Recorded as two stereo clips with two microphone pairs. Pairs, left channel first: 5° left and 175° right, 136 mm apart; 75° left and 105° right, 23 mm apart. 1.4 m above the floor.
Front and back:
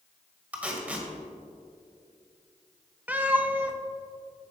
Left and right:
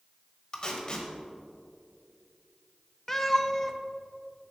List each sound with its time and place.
0.5 s tape being pulled: 110° left, 1.5 m
3.1 s a cat meowing: 125° left, 0.6 m